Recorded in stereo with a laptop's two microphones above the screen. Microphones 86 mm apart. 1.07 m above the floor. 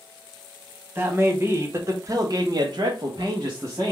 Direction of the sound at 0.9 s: 20° right (ahead or behind).